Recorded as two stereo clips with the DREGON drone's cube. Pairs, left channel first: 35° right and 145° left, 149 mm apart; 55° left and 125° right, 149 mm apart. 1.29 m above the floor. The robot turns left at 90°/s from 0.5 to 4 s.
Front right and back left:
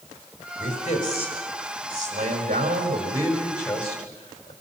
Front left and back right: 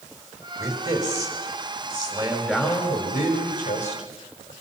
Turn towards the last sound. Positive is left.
turn(degrees=0)